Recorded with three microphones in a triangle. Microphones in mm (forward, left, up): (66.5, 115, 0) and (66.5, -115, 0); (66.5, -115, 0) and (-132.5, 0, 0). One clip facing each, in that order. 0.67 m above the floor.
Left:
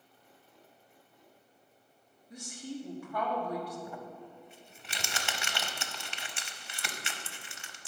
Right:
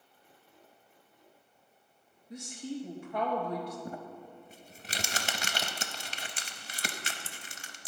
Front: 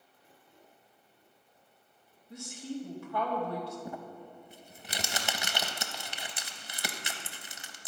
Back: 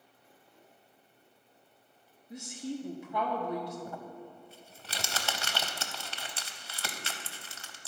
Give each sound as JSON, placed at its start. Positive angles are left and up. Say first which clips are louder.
{"t": 2.3, "sound": "a woman speaking", "louder": "right 3 dB, back 1 dB", "azimuth_deg": -145, "distance_m": 0.9}
{"t": 3.9, "sound": "crumpling", "louder": "right 2 dB, front 1 dB", "azimuth_deg": -95, "distance_m": 0.6}